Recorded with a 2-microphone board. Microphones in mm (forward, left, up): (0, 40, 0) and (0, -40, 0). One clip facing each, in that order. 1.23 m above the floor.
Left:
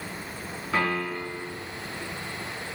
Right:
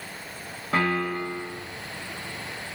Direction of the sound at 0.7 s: 65° right (ahead or behind).